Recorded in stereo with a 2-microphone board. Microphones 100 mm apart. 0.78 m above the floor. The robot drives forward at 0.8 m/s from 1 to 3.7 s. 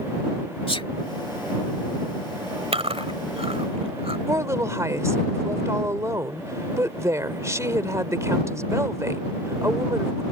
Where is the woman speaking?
30° right (ahead or behind).